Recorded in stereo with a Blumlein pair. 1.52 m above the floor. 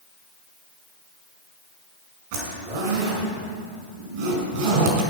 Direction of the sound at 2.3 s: 50° right.